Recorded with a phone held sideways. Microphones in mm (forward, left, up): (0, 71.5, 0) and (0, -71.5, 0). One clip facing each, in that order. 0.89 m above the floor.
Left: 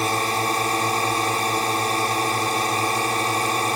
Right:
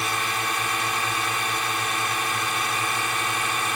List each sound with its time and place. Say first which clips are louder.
0.0 s a drone: left 6 dB; 40° left (ahead or behind)